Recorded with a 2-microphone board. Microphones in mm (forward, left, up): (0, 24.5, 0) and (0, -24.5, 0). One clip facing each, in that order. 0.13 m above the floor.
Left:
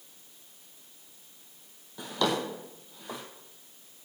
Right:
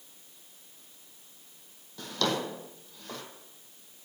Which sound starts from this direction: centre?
A drawer, at 2.0 s.